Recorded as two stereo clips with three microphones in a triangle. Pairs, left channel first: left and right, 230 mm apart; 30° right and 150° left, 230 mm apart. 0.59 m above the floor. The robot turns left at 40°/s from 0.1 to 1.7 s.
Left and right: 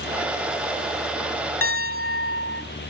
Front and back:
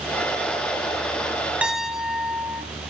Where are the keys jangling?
No keys jangling in this recording.